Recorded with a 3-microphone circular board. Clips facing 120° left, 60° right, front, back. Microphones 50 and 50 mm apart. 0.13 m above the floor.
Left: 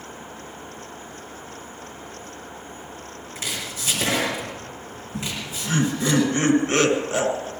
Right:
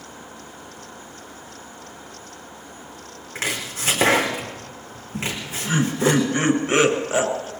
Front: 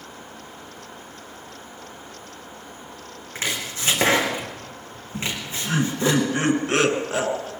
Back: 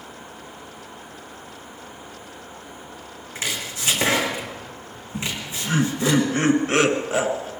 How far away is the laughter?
About 1.6 m.